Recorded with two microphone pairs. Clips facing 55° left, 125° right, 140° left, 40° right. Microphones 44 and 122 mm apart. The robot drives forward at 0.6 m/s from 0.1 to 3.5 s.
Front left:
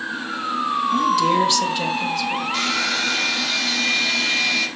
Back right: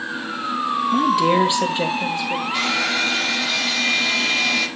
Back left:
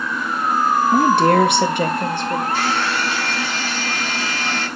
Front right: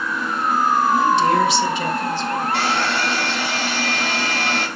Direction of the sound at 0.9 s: 165° left.